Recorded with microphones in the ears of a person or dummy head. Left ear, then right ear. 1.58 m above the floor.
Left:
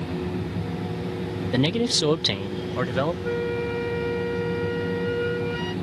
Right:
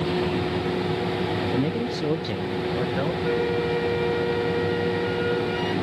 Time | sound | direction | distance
1.5 | a man speaking | 60° left (ahead or behind) | ?
3.2 | a flute | centre (ahead or behind) | ?